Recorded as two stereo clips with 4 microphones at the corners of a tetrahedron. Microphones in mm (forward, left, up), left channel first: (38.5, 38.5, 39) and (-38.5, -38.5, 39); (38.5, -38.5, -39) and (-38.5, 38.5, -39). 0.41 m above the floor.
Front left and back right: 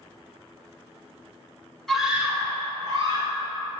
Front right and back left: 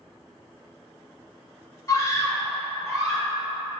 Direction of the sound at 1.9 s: 35° right.